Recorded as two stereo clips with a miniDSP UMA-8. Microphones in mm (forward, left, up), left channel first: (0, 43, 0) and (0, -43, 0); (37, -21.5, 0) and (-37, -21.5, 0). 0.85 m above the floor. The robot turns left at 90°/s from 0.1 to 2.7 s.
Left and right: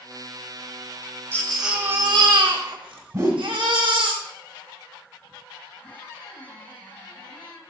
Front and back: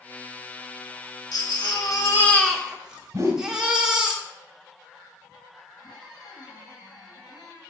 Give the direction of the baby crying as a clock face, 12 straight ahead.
11 o'clock.